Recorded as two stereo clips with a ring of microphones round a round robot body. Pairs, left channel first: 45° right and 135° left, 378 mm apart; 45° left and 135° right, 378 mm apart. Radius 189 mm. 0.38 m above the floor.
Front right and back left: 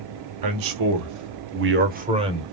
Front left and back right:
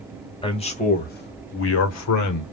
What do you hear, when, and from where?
0.4 s a man speaking: 120° left, 1.5 m; by 2.4 s 55° left, 1.2 m